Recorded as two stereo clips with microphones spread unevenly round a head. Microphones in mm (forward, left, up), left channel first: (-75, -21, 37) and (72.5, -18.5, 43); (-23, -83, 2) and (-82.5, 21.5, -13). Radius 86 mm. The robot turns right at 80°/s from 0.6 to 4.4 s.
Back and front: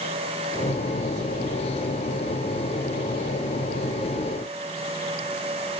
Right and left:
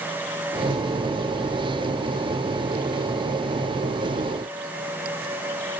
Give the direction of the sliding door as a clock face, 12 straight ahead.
No sliding door in this recording.